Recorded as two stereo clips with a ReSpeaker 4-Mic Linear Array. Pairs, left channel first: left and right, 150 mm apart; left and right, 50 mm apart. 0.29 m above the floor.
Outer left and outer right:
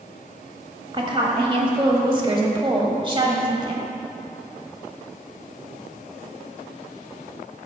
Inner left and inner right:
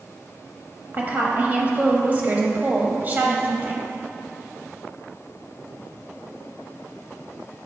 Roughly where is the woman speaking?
Right.